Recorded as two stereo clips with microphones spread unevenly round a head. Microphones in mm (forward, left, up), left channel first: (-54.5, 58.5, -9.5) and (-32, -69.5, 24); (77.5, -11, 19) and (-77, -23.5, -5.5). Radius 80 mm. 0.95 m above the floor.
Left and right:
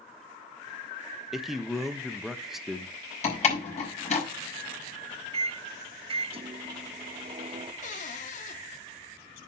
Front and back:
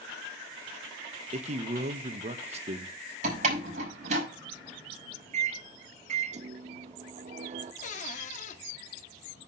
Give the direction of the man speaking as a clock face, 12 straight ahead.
6 o'clock.